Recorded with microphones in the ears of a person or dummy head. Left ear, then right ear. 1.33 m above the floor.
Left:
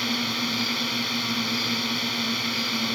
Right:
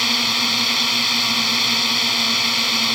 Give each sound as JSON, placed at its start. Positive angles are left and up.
{"t": 0.0, "sound": "a drone", "side_deg": -35}